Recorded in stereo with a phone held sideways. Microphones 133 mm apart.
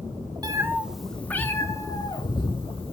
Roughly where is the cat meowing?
Right.